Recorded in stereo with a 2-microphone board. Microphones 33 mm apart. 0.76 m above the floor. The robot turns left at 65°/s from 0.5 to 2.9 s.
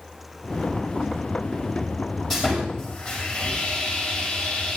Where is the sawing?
175° left, 8.5 m; by 4.8 s 135° left, 8.5 m.